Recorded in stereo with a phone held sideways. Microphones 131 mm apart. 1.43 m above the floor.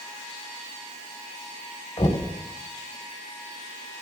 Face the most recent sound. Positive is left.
turn(degrees=55)  # may be behind; listen again after turning